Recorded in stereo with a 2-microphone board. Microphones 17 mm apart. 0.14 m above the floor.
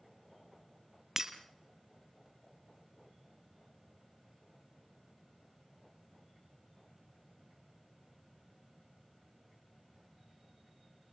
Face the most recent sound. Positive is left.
turn(degrees=-20)  # may be behind; listen again after turning